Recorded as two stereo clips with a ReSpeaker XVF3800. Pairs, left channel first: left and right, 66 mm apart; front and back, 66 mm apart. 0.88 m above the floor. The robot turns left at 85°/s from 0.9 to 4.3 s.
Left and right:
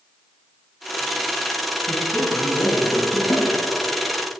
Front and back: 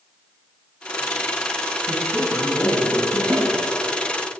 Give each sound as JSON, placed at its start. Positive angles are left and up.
{"t": 1.9, "sound": "a man speaking", "azimuth_deg": 155, "distance_m": 8.0}
{"t": 3.3, "sound": "a snare drum", "azimuth_deg": 125, "distance_m": 8.0}